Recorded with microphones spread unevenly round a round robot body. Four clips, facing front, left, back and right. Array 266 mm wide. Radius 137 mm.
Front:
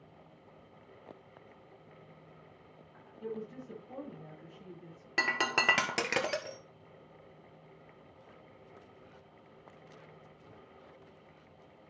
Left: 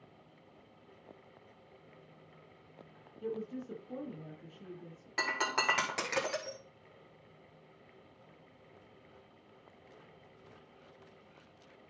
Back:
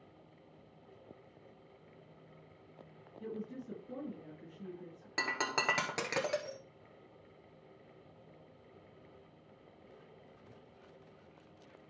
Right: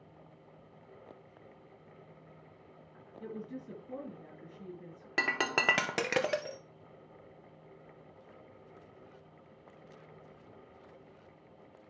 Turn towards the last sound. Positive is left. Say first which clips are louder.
# right 1 dB, front 4 dB
turn(degrees=-65)